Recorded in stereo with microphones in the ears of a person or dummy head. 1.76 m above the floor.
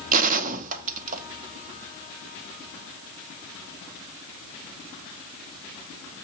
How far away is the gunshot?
About 0.7 m.